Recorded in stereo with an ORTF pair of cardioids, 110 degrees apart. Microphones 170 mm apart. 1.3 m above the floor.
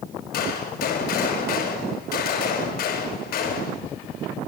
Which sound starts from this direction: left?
A gunshot, at 0.3 s.